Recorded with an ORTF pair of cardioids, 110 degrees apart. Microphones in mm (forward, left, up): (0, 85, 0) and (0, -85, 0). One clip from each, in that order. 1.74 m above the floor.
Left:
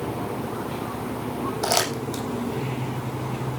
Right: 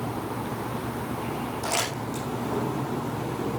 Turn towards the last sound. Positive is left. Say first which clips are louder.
# left 5 dB
turn(degrees=60)